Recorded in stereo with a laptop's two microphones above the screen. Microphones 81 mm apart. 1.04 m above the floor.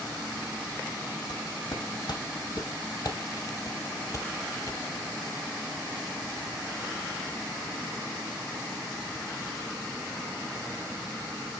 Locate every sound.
1.3 s footsteps: 65° left (ahead or behind), 3 m; by 4.8 s 35° left (ahead or behind), 1.4 m